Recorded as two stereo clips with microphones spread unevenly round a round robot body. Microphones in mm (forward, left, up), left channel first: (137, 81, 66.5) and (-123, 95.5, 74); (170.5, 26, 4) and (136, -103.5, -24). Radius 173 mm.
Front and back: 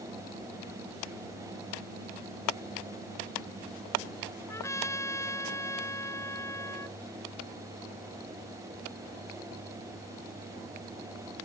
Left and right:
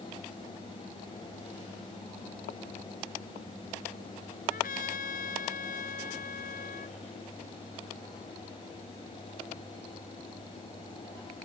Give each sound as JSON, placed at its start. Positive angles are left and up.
{"t": 4.5, "sound": "a trumpet", "azimuth_deg": 75}